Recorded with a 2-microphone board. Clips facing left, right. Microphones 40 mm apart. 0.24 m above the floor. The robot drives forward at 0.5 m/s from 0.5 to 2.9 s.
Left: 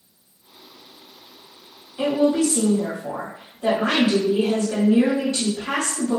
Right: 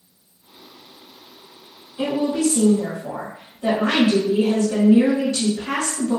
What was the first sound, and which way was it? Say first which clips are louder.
A woman speaking: left 2 dB; 25° left (ahead or behind).